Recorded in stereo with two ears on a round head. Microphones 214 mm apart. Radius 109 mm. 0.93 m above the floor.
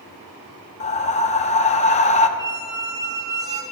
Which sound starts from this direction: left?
Breathing, at 0.8 s.